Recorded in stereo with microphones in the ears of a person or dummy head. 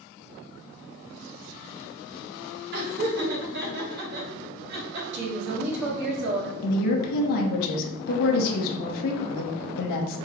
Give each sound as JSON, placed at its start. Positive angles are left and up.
{"t": 2.7, "sound": "laughter", "side_deg": -55, "distance_m": 1.6}
{"t": 5.1, "sound": "a woman speaking", "side_deg": -65, "distance_m": 1.6}
{"t": 6.6, "sound": "a woman speaking", "side_deg": 55, "distance_m": 0.8}